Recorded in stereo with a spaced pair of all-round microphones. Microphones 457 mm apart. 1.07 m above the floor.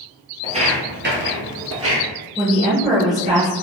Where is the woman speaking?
Centre (ahead or behind), 1.1 m.